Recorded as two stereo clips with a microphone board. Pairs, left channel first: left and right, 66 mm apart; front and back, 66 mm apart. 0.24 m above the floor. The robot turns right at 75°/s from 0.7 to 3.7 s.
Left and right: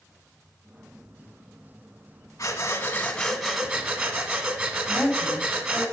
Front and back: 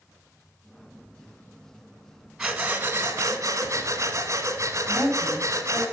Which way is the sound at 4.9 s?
30° right.